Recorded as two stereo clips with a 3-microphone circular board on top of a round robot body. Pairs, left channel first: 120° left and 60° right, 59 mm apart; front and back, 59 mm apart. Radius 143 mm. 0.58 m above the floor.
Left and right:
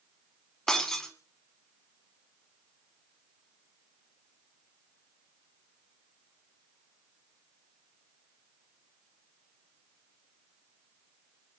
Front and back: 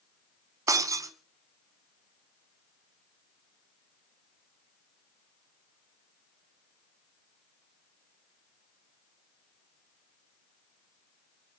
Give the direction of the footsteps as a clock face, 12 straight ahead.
I don't hear footsteps.